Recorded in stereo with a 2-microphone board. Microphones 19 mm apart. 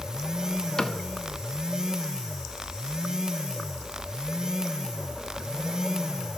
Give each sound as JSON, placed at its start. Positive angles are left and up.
{"t": 0.8, "sound": "a cupboard door", "side_deg": 35, "distance_m": 0.6}